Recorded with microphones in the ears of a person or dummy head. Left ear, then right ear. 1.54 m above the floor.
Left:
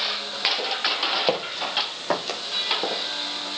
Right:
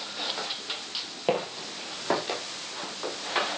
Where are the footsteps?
40° left (ahead or behind), 4 m; by 2.4 s 30° left (ahead or behind), 4.5 m.